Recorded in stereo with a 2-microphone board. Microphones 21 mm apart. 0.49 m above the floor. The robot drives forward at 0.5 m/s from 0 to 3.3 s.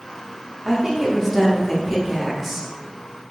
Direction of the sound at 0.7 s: 5° right (ahead or behind).